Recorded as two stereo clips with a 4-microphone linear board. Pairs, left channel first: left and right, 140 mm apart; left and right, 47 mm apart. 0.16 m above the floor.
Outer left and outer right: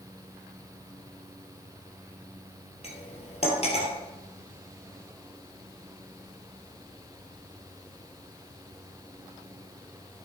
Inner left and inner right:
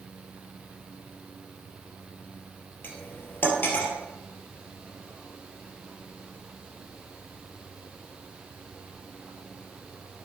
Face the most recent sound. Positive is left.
turn(degrees=45)  # may be behind; listen again after turning